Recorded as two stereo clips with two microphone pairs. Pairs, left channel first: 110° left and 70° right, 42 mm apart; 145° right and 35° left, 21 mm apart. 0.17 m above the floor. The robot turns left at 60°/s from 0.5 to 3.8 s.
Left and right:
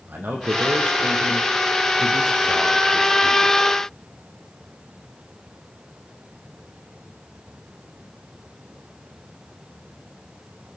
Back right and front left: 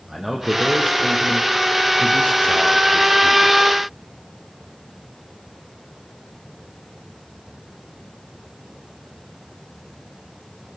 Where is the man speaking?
35° right, 5.5 m; by 3.6 s 140° left, 5.5 m.